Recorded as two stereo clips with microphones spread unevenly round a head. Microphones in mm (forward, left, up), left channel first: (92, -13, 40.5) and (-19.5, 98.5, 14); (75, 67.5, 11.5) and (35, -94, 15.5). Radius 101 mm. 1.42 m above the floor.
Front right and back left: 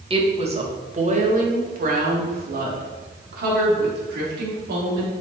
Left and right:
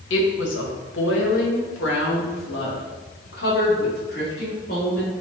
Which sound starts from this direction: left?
A woman speaking, at 0.1 s.